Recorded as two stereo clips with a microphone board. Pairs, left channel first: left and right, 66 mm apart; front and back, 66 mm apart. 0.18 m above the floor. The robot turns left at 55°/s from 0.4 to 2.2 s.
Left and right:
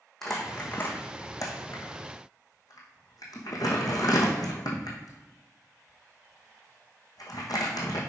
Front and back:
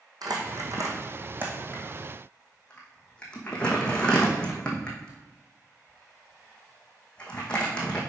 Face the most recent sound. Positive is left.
turn(degrees=75)